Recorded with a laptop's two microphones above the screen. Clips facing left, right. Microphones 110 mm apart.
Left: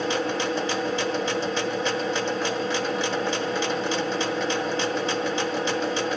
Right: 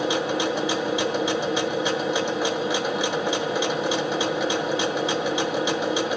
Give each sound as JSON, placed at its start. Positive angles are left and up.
{"t": 0.0, "sound": "a machine running", "side_deg": -10, "distance_m": 1.1}